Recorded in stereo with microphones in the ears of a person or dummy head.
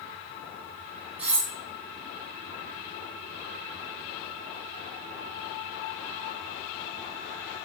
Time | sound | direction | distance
1.2 | cutlery clinking | 10° right (ahead or behind) | 0.7 m